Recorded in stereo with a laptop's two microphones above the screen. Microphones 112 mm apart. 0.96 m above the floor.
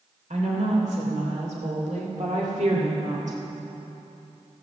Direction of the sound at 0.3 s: 70° right (ahead or behind).